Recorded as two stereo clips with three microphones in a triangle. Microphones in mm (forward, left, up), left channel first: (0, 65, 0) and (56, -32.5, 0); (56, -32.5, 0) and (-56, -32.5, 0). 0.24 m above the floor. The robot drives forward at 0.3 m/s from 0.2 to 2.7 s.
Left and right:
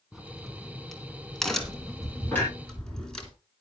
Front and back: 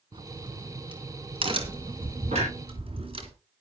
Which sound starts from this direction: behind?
A clunk, at 2.3 s.